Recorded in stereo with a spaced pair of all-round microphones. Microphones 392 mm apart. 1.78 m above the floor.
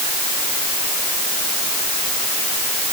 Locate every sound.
Only background noise.